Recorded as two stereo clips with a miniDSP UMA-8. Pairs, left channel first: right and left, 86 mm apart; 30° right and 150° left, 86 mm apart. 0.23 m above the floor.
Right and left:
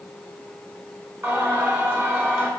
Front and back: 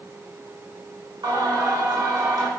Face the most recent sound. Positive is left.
turn(degrees=145)